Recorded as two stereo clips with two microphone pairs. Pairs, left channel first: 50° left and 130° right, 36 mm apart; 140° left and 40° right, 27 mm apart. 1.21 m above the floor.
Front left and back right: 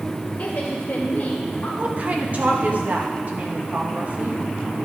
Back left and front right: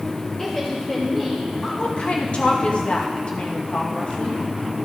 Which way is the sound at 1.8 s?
175° right.